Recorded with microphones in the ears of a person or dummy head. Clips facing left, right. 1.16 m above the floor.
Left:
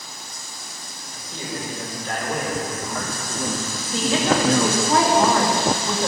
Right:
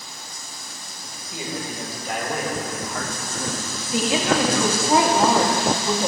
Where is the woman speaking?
10° right (ahead or behind), 1.6 m.